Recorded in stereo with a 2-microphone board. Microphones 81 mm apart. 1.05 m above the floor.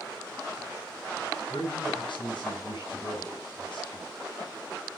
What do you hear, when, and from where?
1.5 s a man speaking: 75° left (ahead or behind), 5.5 m